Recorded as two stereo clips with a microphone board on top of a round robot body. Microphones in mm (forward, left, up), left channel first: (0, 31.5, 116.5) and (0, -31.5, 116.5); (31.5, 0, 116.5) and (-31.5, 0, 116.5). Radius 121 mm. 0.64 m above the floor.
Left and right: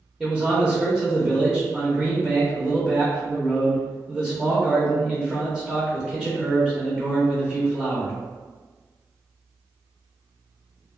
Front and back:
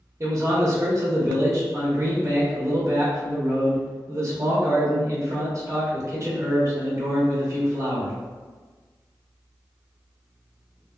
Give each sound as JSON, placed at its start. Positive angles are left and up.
{"t": 0.2, "sound": "a man speaking", "azimuth_deg": -175, "distance_m": 1.0}